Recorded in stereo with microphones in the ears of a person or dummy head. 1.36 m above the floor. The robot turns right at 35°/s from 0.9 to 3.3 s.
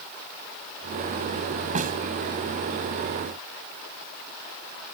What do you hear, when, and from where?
1.8 s a snare drum: 40° right (ahead or behind); by 2.0 s 50° right (ahead or behind)